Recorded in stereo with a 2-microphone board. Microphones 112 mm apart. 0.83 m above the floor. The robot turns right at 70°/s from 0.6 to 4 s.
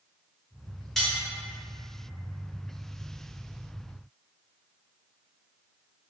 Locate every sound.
1.0 s cutlery clinking: centre (ahead or behind), 1.0 m; by 1.2 s 20° left (ahead or behind), 1.0 m